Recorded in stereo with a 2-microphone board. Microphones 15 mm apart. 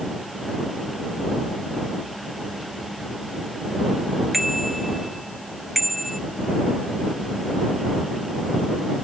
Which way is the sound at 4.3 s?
15° right (ahead or behind).